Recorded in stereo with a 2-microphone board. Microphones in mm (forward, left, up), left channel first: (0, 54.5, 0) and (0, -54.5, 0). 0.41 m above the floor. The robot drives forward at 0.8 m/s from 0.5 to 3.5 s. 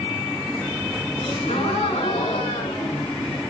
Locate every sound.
1.2 s a gasp: 65° left (ahead or behind), 6 m; by 3.4 s 75° left (ahead or behind), 5.5 m